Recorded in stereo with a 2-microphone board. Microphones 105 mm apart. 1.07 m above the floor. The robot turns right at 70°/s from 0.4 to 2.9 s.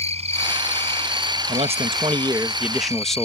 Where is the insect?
110° right; by 3.2 s 65° left.